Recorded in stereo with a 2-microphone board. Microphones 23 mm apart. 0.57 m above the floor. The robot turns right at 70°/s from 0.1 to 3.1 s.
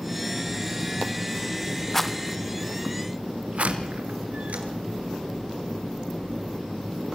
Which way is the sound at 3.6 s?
75° right (ahead or behind).